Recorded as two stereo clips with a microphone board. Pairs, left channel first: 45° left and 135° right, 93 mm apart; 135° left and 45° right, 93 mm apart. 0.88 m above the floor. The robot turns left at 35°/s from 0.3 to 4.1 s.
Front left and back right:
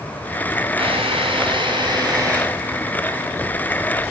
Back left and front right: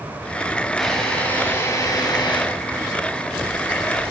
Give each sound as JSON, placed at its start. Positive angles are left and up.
{"t": 0.8, "sound": "a drill", "azimuth_deg": -135, "distance_m": 6.5}